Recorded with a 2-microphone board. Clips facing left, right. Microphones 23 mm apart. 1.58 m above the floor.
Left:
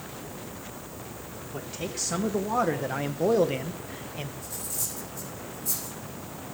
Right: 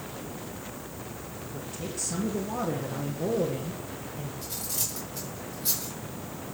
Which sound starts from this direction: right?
Cutlery clinking, at 4.4 s.